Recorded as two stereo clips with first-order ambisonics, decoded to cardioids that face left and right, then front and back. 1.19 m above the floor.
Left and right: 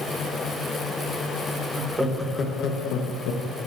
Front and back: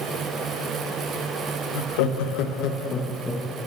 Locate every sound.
1.8 s laughter: 10° right, 1.4 m; by 3.7 s 95° left, 1.6 m